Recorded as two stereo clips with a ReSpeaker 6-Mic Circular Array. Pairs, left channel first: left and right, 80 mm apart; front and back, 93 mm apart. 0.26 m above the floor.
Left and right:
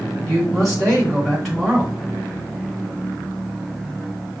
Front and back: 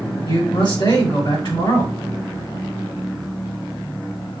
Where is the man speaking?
Straight ahead, 3 m.